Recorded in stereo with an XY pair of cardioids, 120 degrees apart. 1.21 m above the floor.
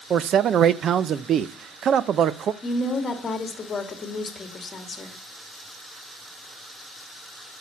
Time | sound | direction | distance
0.1 | a man speaking | 50° right | 0.6 m
2.6 | a woman speaking | 30° left | 2 m